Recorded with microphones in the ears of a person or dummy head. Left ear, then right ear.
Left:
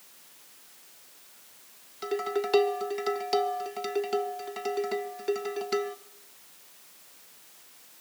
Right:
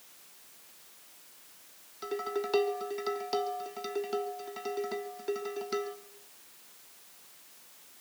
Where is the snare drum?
I don't hear a snare drum.